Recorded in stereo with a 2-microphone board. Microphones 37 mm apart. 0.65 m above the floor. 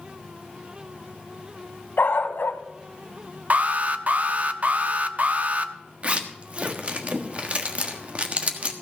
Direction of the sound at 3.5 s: 45° right (ahead or behind).